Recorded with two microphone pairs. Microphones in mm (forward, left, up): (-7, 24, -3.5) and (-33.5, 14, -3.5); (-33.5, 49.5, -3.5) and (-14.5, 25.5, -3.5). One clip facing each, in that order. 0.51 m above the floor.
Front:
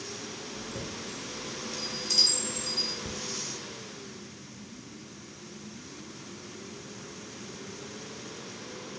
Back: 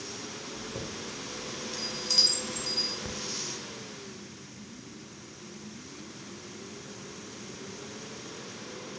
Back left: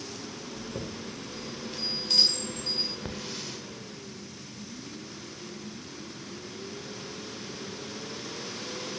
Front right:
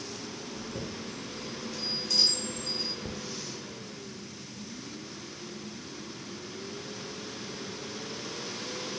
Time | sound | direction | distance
0.5 | a chime | 130° left | 1.8 m
3.0 | a hiss | 125° left | 0.6 m